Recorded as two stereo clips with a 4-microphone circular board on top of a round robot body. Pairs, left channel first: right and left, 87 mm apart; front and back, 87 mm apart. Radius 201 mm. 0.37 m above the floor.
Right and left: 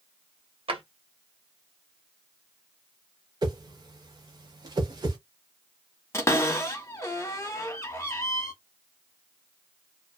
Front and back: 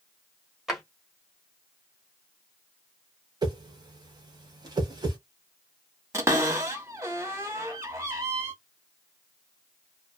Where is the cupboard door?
135° right, 1.4 m.